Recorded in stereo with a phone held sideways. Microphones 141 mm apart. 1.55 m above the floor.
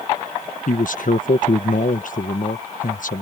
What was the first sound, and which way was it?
A man speaking, 70° left (ahead or behind).